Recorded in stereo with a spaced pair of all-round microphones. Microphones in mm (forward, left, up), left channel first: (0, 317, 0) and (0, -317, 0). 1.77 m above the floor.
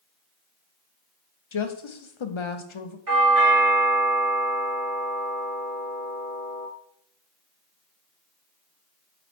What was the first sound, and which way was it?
A woman speaking, 50° left (ahead or behind).